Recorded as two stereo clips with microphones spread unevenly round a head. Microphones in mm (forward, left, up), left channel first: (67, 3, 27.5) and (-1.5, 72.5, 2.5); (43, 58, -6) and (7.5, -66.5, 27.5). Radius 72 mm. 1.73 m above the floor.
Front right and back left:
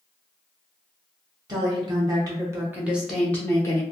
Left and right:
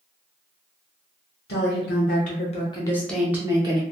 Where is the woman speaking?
85° left, 1.2 m; by 3.8 s 85° right, 0.9 m.